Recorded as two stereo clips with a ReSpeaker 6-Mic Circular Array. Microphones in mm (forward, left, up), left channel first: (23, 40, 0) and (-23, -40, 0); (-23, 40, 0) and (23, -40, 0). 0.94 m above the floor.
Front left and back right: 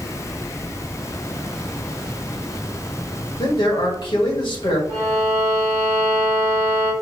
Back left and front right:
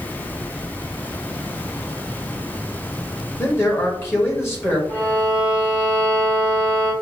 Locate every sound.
3.4 s a man speaking: 60° left, 1.7 m
4.9 s a violin: 55° left, 1.3 m